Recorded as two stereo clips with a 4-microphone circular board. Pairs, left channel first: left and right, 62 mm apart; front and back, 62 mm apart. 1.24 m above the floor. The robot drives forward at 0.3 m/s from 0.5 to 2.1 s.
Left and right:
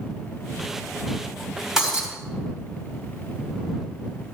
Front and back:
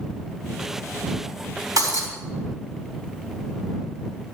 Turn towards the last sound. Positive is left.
turn(degrees=-175)